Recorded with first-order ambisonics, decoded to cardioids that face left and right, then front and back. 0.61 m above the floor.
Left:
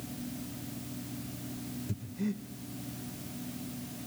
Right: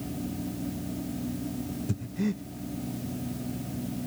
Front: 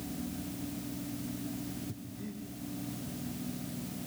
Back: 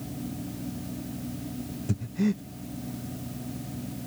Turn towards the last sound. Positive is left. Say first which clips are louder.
# right 5 dB, back 14 dB
turn(degrees=-155)